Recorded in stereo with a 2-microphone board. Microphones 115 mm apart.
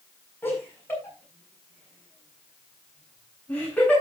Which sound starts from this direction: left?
Laughter, at 0.4 s.